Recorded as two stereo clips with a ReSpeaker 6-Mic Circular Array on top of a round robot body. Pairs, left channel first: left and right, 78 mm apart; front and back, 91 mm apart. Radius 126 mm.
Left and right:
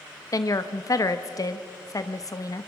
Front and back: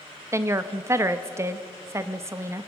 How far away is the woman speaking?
About 1.0 m.